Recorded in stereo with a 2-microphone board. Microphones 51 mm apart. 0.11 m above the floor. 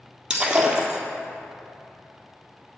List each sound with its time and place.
0.3 s breaking glass: 15° right (ahead or behind), 1.5 m